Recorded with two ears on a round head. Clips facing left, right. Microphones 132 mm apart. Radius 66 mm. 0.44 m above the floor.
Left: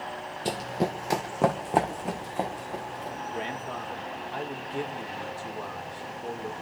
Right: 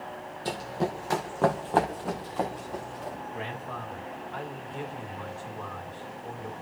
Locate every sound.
0.5 s running footsteps: 20° left (ahead or behind), 0.8 m; by 3.2 s 10° left (ahead or behind), 2.5 m
3.3 s a man speaking: 40° left (ahead or behind), 1.6 m